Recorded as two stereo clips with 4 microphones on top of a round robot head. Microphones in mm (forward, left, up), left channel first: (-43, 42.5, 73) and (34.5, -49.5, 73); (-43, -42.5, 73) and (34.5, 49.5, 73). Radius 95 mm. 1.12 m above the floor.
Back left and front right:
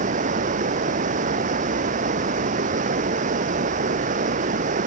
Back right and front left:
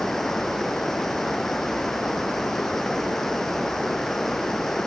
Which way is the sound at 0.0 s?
45° right.